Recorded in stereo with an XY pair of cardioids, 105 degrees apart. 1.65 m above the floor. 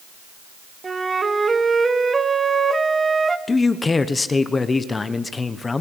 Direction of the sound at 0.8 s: 25° right.